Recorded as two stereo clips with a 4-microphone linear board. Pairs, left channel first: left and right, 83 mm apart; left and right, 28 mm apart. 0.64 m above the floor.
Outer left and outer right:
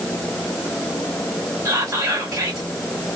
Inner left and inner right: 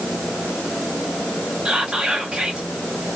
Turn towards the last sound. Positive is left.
turn(degrees=-35)  # may be behind; listen again after turning